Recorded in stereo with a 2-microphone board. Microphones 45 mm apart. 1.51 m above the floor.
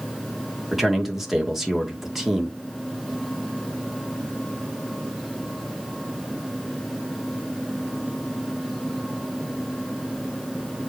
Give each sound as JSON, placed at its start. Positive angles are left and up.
{"t": 0.7, "sound": "a man speaking", "side_deg": -5, "distance_m": 2.0}